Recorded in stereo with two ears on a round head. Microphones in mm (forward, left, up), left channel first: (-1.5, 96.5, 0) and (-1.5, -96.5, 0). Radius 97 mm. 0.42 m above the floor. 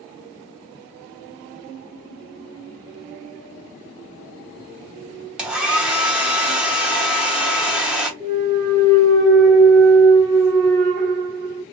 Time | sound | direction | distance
5.4 | a hair dryer | 5° right (ahead or behind) | 0.7 m
8.2 | a clunk | 25° right (ahead or behind) | 1.1 m